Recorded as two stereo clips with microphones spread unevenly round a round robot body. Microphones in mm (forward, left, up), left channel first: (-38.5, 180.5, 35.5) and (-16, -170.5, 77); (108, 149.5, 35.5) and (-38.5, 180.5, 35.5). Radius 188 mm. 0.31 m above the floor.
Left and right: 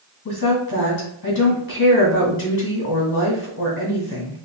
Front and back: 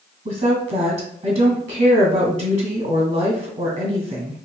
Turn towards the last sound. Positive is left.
turn(degrees=145)